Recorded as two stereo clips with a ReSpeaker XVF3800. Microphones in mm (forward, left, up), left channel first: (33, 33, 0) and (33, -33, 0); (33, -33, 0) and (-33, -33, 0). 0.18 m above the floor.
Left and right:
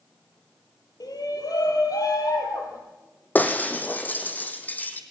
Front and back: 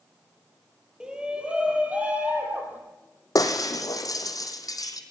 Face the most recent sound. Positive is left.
turn(degrees=25)